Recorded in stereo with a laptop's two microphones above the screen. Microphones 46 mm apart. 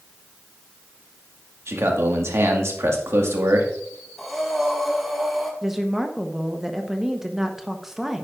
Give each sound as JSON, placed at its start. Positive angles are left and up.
{"t": 1.7, "sound": "a man speaking", "side_deg": -70, "distance_m": 1.8}
{"t": 4.2, "sound": "breathing", "side_deg": 0, "distance_m": 3.0}
{"t": 5.6, "sound": "a woman speaking", "side_deg": -10, "distance_m": 1.0}